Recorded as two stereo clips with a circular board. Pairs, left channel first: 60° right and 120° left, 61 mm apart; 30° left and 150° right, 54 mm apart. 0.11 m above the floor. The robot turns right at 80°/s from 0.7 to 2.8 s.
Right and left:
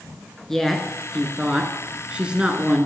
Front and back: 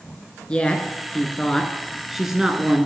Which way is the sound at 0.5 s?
15° left.